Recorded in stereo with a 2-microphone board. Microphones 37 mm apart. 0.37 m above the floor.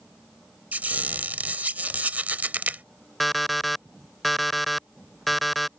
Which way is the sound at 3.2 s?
Centre (ahead or behind).